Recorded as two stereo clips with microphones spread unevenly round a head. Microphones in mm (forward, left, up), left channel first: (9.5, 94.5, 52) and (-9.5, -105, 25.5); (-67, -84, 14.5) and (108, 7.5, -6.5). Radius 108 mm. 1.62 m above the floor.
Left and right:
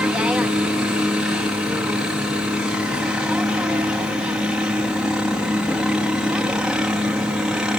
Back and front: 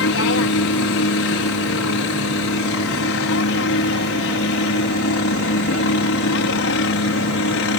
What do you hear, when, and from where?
0.0 s a helicopter: straight behind